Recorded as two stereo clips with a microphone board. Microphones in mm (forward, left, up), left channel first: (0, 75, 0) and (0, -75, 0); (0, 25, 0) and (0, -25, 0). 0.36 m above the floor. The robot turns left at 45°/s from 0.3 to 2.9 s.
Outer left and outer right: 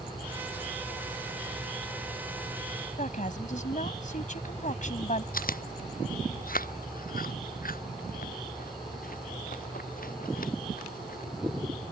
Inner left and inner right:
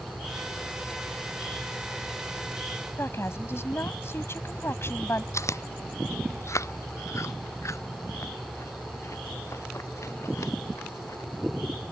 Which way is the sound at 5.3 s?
75° left (ahead or behind).